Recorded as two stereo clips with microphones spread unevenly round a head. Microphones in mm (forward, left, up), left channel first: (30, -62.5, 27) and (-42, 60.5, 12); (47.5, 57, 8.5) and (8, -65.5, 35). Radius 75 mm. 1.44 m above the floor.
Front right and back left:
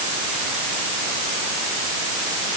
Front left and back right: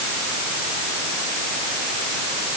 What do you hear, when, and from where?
Only background noise.